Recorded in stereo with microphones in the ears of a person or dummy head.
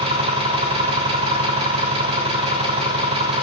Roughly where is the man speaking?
I don't hear a man speaking.